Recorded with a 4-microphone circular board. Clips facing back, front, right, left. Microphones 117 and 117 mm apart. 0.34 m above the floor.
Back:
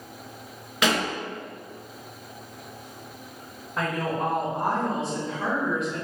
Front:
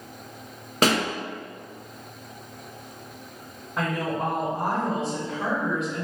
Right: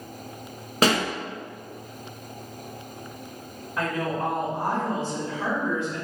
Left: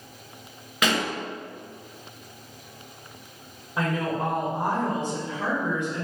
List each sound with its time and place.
0.8 s a pop: 40° right, 0.6 m
3.8 s a woman speaking: 90° left, 1.2 m